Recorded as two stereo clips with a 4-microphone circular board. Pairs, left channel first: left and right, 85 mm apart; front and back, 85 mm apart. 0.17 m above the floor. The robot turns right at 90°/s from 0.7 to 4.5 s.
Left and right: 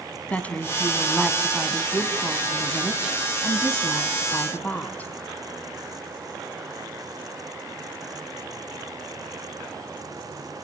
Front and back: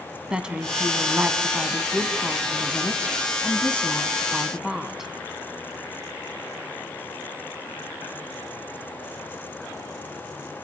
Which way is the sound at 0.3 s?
125° left.